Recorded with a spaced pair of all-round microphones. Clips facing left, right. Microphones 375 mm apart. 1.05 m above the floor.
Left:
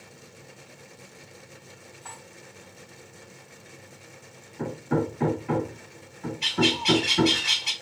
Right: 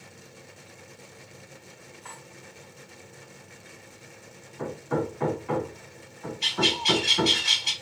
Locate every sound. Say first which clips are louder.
2.0 s cutlery clinking: even; 50° left (ahead or behind), 1.4 m
4.6 s hammering: left 2 dB; 40° left (ahead or behind), 1.5 m
6.4 s a bird: left 4 dB; 70° left (ahead or behind), 1.6 m